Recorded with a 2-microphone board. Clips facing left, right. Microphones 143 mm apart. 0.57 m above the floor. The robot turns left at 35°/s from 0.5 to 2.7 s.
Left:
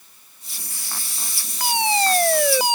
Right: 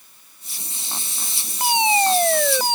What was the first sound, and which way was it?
A fire alarm, 155° right.